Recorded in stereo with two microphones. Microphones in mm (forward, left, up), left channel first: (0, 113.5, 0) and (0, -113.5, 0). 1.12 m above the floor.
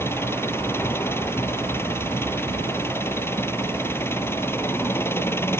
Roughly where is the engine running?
Centre.